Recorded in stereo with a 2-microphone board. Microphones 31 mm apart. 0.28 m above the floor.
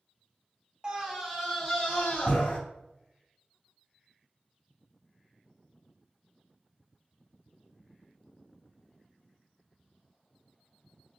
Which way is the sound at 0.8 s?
25° right (ahead or behind).